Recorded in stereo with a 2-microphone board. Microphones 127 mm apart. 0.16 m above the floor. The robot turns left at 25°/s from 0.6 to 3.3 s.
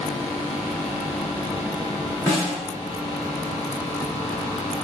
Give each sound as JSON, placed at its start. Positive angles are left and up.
{"t": 2.3, "sound": "a snare drum", "side_deg": 25, "distance_m": 1.1}